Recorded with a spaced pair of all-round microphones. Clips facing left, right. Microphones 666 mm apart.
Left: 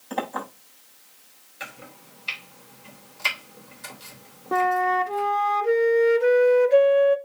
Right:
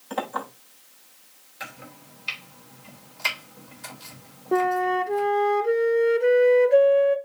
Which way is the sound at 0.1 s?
35° right (ahead or behind).